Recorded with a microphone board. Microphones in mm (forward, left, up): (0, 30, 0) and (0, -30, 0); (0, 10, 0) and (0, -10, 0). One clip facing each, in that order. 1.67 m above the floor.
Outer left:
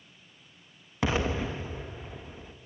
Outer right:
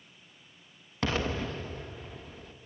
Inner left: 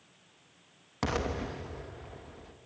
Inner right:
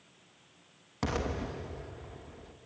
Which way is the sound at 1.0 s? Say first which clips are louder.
Outer left 2 dB, inner left 1 dB; 15° left (ahead or behind).